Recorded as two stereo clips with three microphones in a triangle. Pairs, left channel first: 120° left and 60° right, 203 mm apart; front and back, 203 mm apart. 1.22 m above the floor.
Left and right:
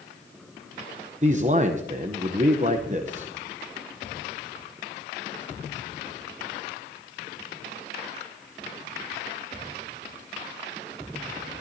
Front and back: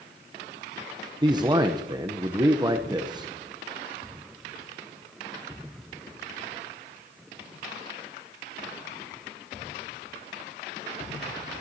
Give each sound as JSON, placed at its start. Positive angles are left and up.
{"t": 1.2, "sound": "a man speaking", "azimuth_deg": -110, "distance_m": 0.7}